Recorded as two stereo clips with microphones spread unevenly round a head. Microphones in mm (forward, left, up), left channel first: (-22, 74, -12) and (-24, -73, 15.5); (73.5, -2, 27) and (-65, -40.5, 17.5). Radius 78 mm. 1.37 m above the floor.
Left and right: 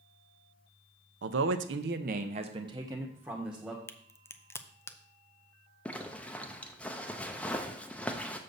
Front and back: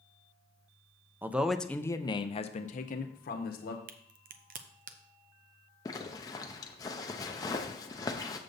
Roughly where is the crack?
Behind.